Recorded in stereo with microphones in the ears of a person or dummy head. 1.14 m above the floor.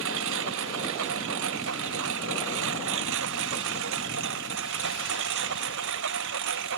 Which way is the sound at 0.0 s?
65° right (ahead or behind).